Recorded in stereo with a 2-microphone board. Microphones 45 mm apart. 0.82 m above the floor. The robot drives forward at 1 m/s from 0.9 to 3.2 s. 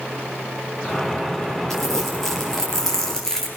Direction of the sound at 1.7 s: 5° left (ahead or behind).